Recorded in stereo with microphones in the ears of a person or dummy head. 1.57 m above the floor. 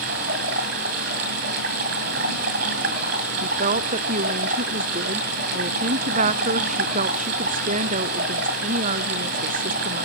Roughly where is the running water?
Right.